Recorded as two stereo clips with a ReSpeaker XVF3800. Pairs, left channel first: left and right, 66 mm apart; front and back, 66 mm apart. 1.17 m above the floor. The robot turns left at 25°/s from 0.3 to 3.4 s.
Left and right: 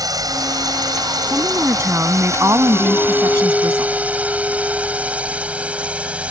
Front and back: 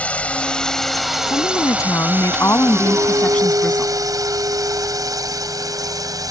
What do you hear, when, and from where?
0.0 s a drone: 70° right; by 6.3 s 160° right
1.3 s a woman speaking: 20° right; by 3.9 s 70° right
2.9 s a clink: 165° left; by 6.3 s 155° left